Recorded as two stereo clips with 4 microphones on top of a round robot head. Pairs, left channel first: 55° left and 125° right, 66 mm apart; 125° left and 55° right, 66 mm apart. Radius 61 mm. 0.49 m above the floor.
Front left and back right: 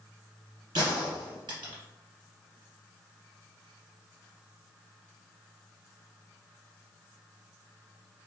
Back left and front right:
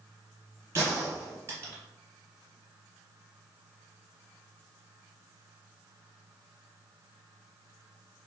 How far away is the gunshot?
About 1.0 m.